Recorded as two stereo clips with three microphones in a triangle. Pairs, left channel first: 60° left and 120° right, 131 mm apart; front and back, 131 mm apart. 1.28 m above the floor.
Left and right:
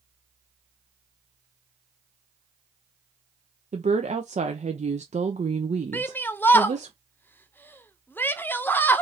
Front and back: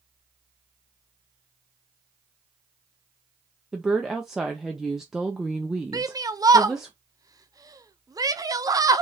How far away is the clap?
No clap in this recording.